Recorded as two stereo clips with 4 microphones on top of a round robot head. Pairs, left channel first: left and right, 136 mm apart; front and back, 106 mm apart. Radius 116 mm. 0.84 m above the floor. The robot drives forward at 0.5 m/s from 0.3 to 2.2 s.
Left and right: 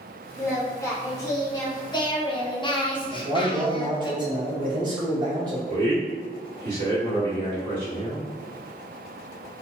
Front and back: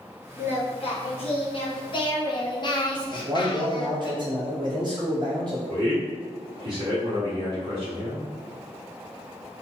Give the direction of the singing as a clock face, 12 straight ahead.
11 o'clock.